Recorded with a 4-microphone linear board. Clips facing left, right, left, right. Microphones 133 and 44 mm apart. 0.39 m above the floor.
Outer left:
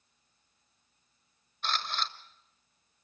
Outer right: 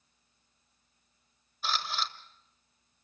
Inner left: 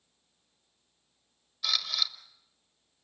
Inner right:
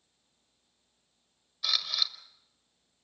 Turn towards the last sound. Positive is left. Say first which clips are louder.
# even, even
turn(degrees=-5)  # may be behind; listen again after turning